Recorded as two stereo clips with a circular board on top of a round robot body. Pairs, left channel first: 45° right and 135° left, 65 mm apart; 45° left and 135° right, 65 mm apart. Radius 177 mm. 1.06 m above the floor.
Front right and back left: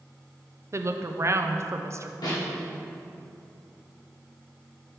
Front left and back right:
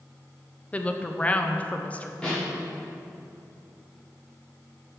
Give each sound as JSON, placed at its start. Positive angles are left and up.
{"t": 0.7, "sound": "a woman speaking", "azimuth_deg": 110, "distance_m": 0.8}
{"t": 2.2, "sound": "a snare drum", "azimuth_deg": -30, "distance_m": 2.5}